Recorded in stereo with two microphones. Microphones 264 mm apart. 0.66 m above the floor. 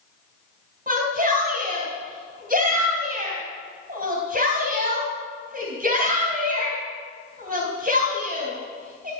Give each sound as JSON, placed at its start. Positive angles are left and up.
{"t": 0.9, "sound": "a shout", "side_deg": -35, "distance_m": 3.5}